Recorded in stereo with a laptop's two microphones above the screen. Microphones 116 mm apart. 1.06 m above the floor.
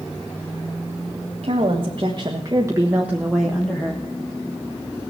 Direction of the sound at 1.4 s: 55° right (ahead or behind).